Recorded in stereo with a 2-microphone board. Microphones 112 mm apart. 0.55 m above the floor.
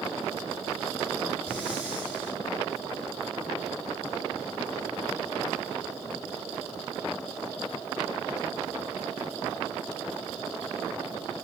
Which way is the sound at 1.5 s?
10° right (ahead or behind).